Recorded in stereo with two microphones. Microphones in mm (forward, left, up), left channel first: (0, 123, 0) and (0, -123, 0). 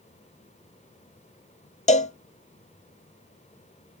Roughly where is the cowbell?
Left.